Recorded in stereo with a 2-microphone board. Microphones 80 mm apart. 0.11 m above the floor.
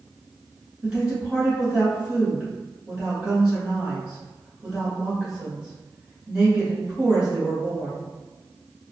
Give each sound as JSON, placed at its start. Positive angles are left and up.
{"t": 0.8, "sound": "a woman speaking", "side_deg": -10, "distance_m": 1.2}